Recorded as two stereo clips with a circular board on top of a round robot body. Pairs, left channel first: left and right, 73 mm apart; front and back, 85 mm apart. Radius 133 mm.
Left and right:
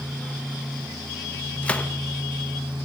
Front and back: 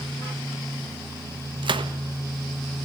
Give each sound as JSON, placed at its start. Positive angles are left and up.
{"t": 1.6, "sound": "a gunshot", "azimuth_deg": 165, "distance_m": 1.4}